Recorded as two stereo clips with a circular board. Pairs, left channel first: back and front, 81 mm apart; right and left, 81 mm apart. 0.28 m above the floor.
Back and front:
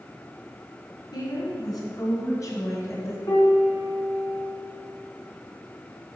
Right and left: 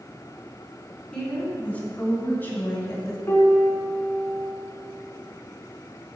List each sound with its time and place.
1.1 s a woman speaking: 165° right, 3 m; by 3.2 s 135° right, 2 m
3.3 s a piano: 150° right, 1.6 m